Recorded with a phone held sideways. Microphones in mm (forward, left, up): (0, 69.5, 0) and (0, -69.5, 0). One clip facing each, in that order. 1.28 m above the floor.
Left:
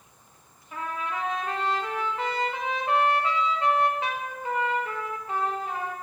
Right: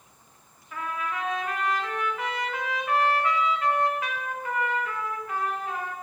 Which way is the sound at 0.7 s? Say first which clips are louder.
Even; 25° left (ahead or behind).